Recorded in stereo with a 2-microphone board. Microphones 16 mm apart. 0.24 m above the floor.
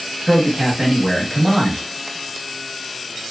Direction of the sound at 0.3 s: 30° right (ahead or behind).